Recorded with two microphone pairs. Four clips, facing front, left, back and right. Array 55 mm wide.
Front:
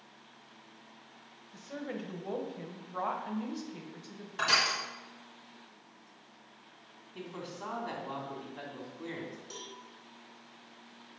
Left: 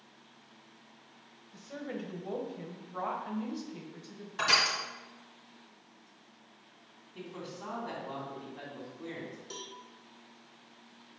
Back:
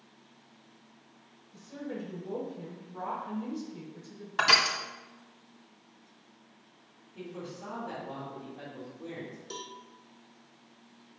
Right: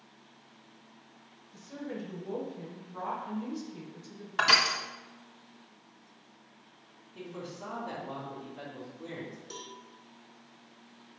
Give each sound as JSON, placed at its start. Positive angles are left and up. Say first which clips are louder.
{"t": 1.5, "sound": "a woman speaking", "louder": "even, back 1 dB", "azimuth_deg": 20, "distance_m": 1.5}
{"t": 4.4, "sound": "crushing", "louder": "right 3 dB, back 4 dB", "azimuth_deg": -140, "distance_m": 1.6}
{"t": 7.2, "sound": "a man speaking", "louder": "right 1 dB, back 1 dB", "azimuth_deg": 0, "distance_m": 2.5}
{"t": 9.5, "sound": "a cowbell", "louder": "right 1 dB, back 4 dB", "azimuth_deg": 160, "distance_m": 0.7}